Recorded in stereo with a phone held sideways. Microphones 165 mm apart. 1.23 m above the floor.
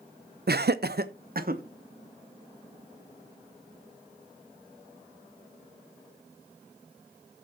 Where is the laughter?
75° right (ahead or behind), 0.6 m; by 1.6 s 60° right (ahead or behind), 1.5 m.